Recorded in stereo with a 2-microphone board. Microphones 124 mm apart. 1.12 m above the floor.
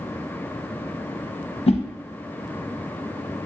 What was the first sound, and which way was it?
A whoosh, 55° left (ahead or behind).